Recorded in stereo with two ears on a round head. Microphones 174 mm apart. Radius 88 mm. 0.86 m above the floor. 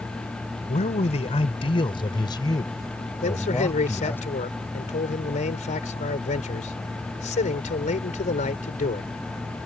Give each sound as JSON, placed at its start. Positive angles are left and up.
{"t": 0.7, "sound": "a man speaking", "side_deg": 40}
{"t": 3.2, "sound": "a man speaking", "side_deg": 40}